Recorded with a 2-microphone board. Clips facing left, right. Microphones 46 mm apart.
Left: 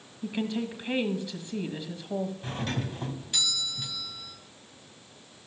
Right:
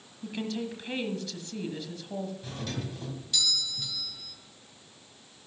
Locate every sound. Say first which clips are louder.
0.2 s a woman speaking: left 3 dB; 20° left (ahead or behind), 1.3 m
2.4 s a doorbell: left 4 dB; 35° left (ahead or behind), 2 m